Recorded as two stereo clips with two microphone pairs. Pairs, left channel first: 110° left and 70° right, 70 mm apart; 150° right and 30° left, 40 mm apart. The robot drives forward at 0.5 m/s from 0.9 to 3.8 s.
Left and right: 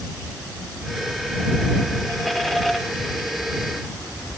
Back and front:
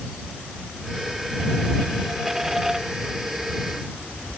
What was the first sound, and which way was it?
Only background noise.